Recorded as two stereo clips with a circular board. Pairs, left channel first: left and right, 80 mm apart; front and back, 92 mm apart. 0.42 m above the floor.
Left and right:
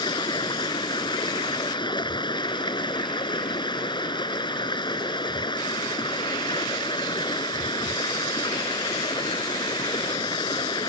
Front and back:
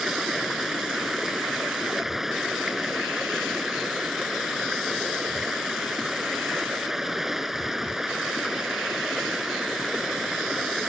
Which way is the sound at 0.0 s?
95° left.